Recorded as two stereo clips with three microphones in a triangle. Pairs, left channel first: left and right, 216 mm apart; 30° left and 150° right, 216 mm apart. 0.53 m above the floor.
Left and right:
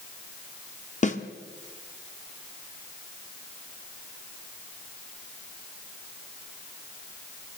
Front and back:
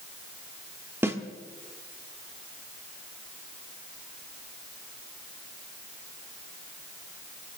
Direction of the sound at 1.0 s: 135° left.